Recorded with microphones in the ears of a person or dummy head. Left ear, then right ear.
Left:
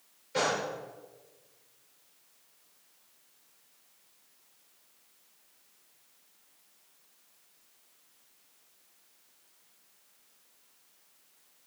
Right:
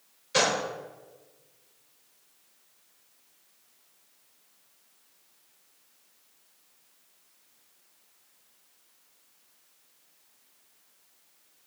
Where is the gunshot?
45° right (ahead or behind), 1.0 m.